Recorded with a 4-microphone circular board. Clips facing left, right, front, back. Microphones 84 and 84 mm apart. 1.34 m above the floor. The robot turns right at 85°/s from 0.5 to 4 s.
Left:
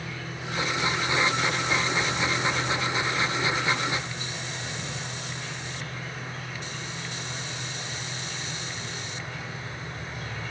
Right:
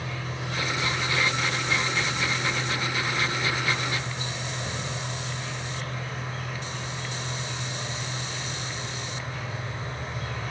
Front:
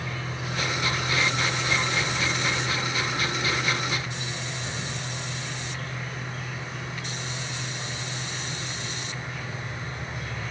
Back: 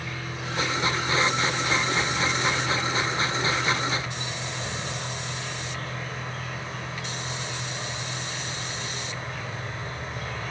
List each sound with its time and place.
0.0 s an insect: 70° right, 9.5 m; by 10.5 s 130° right, 9.5 m